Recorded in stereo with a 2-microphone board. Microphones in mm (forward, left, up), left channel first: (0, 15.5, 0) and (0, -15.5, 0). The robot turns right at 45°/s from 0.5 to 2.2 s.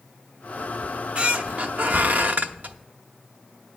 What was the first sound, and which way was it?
A squeak, 150° right.